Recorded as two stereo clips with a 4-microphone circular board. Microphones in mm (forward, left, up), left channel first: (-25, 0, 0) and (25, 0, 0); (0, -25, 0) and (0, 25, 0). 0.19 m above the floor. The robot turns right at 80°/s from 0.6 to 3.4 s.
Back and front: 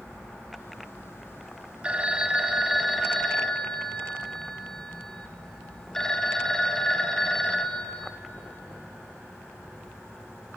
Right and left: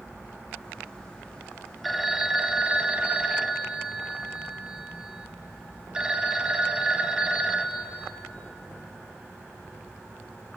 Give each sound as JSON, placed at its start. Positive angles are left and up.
{"t": 1.8, "sound": "a phone ringing", "azimuth_deg": 0, "distance_m": 0.5}